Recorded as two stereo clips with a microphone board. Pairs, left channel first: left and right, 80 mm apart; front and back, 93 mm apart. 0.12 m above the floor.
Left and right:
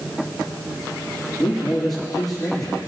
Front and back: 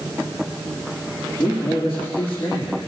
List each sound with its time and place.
1.4 s a man speaking: straight ahead, 7 m; by 2.8 s 5° left, 7.5 m